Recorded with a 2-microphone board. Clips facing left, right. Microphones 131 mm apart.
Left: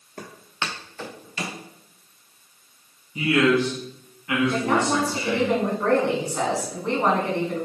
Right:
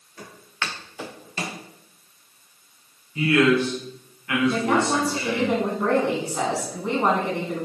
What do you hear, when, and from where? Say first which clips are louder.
0.2 s footsteps: left 1 dB; 55° left (ahead or behind), 1.0 m; by 1.6 s 40° right (ahead or behind), 1.4 m
3.1 s a man speaking: right 1 dB; 20° left (ahead or behind), 1.2 m
4.5 s a woman speaking: right 2 dB; 10° right (ahead or behind), 1.1 m